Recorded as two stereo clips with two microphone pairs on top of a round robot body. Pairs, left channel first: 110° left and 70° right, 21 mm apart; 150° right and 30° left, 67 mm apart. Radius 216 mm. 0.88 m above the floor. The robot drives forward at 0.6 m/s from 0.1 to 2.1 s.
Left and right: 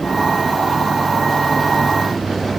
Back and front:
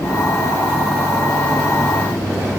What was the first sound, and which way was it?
Only background noise.